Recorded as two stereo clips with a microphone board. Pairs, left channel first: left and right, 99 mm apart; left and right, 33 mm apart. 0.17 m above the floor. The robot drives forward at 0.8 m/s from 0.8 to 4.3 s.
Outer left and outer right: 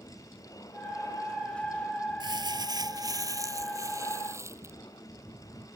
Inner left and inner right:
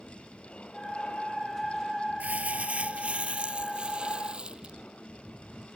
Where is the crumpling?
50° right (ahead or behind); by 4.8 s 30° right (ahead or behind).